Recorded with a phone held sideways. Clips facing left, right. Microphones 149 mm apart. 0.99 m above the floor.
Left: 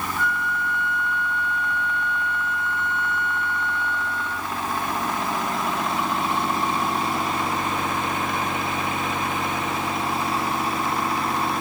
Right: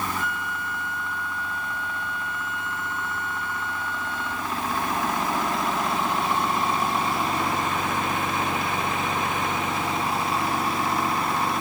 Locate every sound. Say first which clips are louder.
0.2 s a flute: left 4 dB; 55° right (ahead or behind), 4.5 m